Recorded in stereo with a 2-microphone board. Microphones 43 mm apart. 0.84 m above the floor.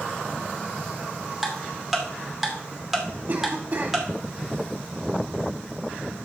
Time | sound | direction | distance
1.4 | ticking | 5° right (ahead or behind) | 2.5 m
3.3 | a cough | 55° right (ahead or behind) | 3 m